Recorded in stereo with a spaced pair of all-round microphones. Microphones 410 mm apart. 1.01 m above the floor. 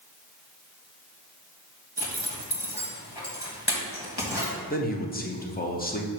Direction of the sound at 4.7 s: 20° left (ahead or behind).